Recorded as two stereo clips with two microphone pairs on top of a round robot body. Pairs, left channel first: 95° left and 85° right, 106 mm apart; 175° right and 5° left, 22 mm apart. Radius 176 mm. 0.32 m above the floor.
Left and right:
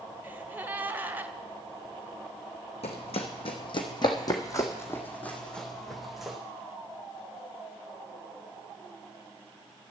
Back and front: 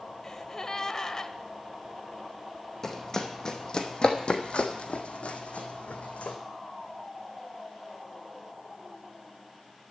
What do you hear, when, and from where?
0.2 s a gasp: 145° right, 1.2 m
2.8 s running footsteps: 120° left, 1.4 m; by 6.4 s 170° right, 1.7 m